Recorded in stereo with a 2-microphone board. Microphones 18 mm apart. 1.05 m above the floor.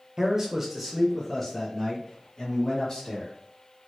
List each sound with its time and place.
0.2 s a man speaking: 25° right (ahead or behind), 0.7 m; by 3.4 s 25° left (ahead or behind), 1.8 m